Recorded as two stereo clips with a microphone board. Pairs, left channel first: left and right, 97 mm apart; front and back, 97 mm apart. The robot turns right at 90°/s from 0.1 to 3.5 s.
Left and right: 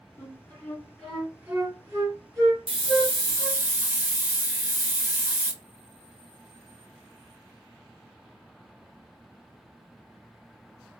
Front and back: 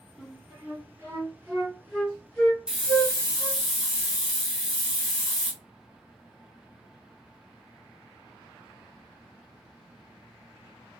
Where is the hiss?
100° right, 0.7 m; by 5.5 s 25° right, 0.7 m.